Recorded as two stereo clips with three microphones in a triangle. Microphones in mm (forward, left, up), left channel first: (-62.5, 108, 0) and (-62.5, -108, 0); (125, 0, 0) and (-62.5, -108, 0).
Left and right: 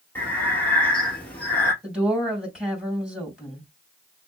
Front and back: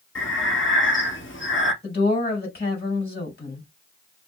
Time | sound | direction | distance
0.1 | breathing | 10° left | 1.8 m
1.8 | a woman speaking | 5° right | 3 m